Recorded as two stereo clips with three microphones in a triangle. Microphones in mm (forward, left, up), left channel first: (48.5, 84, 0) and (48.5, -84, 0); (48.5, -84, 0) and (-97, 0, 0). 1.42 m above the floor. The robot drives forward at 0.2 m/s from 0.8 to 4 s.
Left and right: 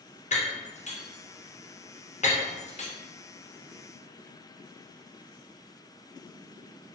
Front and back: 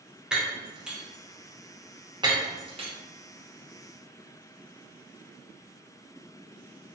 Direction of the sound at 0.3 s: 65° left.